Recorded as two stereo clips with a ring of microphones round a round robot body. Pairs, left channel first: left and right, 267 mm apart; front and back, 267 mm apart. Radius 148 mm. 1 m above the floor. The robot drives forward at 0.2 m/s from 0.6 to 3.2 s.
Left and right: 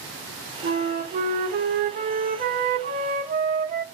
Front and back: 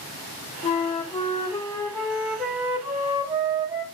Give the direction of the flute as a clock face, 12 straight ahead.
2 o'clock.